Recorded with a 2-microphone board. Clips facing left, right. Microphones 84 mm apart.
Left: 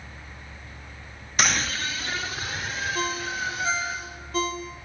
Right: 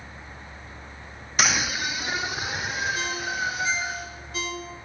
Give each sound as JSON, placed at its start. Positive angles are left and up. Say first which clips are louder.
{"t": 1.4, "sound": "a scream", "louder": "right 1 dB", "side_deg": -5, "distance_m": 0.7}
{"t": 3.0, "sound": "a ringtone", "louder": "even", "side_deg": 45, "distance_m": 3.5}